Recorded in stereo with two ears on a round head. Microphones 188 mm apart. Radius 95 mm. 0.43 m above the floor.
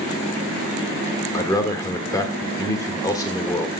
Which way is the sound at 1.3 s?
15° left (ahead or behind).